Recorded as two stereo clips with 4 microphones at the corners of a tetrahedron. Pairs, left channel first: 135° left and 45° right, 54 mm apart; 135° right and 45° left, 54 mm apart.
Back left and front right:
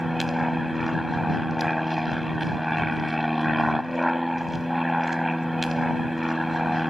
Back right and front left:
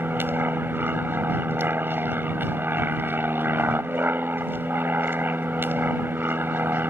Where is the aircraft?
40° left.